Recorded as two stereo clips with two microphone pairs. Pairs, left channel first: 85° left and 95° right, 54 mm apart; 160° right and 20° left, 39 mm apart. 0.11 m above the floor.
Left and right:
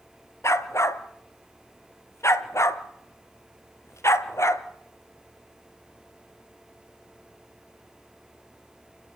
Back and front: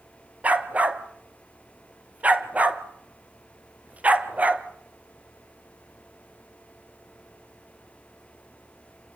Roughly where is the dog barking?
Ahead left.